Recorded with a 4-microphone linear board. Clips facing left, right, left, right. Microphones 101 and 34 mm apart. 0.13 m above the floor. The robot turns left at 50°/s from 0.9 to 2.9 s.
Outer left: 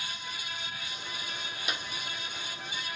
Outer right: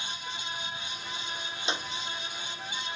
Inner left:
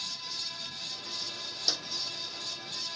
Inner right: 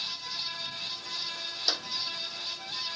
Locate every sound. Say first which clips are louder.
1.7 s a clap: outer right 4 dB, inner right 2 dB; 25° right (ahead or behind); by 1.9 s 35° right (ahead or behind)